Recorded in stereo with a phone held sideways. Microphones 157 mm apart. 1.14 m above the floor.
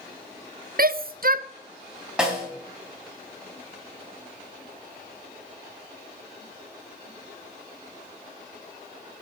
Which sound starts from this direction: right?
A shout, at 0.8 s.